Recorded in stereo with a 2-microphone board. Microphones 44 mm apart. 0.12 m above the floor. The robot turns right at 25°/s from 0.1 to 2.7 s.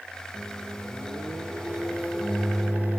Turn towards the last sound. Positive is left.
turn(degrees=-60)